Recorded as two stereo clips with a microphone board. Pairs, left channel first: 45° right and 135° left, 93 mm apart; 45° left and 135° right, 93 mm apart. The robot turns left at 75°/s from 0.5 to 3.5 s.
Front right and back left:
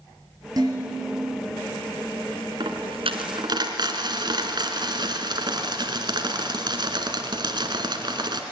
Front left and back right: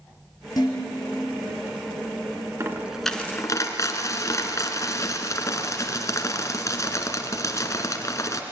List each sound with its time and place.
0.6 s dishes clattering: 90° left, 4.5 m; by 1.3 s 40° left, 4.5 m
2.6 s a dropped coin: 165° left, 1.9 m; by 8.4 s 100° left, 1.9 m